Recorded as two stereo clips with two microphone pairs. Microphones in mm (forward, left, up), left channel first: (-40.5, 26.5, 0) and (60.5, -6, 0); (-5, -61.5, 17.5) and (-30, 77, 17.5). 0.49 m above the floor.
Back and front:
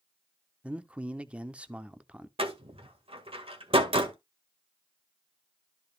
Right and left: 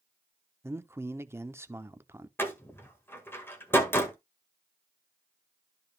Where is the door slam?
5° right, 1.7 m.